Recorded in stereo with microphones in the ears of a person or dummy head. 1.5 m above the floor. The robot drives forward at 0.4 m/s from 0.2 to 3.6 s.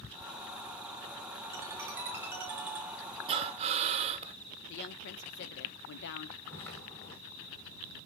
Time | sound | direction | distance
1.5 | a ringtone | 15° right (ahead or behind) | 0.7 m
3.3 | breathing | 30° right (ahead or behind) | 0.9 m
4.7 | a woman speaking | 65° left (ahead or behind) | 0.8 m
6.5 | footsteps | 5° left (ahead or behind) | 3 m